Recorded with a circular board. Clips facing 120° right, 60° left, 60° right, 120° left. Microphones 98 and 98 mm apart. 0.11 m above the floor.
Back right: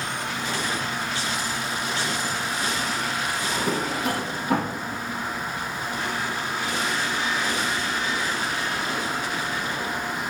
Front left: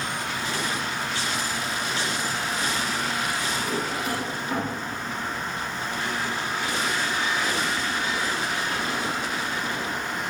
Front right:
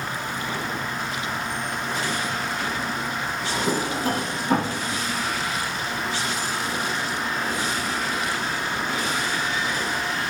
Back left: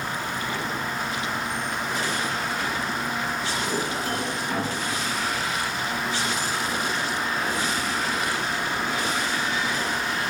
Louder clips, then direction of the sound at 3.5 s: Back right 2 dB, front right 2 dB; 105° right.